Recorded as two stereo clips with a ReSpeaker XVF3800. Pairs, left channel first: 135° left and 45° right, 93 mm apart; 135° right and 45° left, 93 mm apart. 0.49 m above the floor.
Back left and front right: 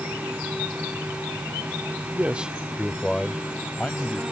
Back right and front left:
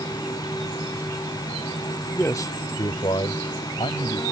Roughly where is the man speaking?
Right.